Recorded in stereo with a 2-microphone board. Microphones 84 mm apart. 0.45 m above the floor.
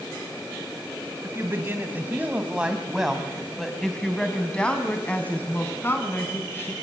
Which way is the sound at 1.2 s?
30° right (ahead or behind).